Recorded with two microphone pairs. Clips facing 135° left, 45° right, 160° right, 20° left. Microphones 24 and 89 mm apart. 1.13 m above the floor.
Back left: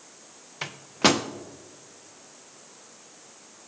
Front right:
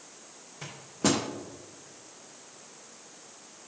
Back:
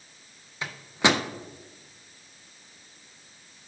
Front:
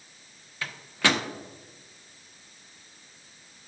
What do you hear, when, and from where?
0.6 s a microwave: 135° left, 0.6 m